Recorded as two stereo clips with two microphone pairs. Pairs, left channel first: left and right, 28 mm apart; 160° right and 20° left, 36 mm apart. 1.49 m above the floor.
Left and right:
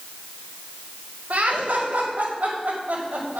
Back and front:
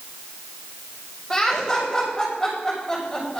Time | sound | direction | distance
1.3 | laughter | 80° right | 4.5 m